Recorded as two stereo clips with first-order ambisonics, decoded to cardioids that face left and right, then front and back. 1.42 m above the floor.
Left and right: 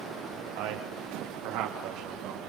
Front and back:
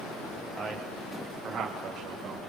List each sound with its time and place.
0.6 s a man speaking: 90° right, 0.9 m; by 2.4 s 120° right, 1.8 m